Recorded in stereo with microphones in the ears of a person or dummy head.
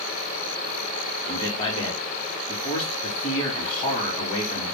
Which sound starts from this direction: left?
A man speaking, at 1.2 s.